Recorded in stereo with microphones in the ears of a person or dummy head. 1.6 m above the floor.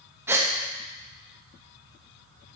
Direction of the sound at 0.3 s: 15° right (ahead or behind).